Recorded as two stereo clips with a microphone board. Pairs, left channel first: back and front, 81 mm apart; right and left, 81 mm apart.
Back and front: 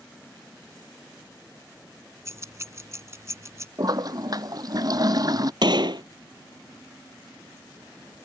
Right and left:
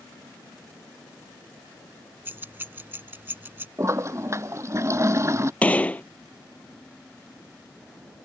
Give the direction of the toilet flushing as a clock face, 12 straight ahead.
11 o'clock.